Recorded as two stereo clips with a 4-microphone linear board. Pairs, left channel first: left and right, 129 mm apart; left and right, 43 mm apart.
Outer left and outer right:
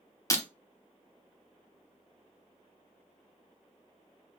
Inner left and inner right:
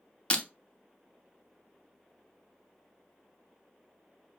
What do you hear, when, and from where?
0.3 s breaking glass: 25° left (ahead or behind), 0.8 m